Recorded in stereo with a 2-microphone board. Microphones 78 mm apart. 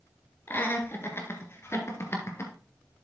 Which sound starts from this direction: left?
Laughter, at 0.5 s.